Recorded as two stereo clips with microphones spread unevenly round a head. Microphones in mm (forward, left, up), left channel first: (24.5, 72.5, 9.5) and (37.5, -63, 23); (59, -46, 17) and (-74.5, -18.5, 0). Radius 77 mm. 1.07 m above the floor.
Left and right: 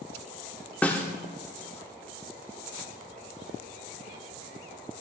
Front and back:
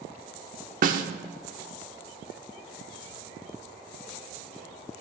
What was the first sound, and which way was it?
A snare drum, straight behind.